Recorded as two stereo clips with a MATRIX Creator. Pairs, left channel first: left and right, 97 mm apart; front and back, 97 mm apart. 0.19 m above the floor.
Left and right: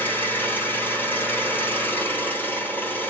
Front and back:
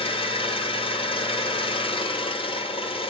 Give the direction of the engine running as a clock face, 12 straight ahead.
11 o'clock.